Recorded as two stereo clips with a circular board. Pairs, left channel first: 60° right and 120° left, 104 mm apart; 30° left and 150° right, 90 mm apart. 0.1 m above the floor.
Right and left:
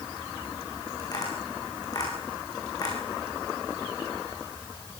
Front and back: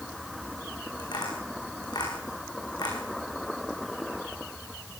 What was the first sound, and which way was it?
Tapping, 5° right.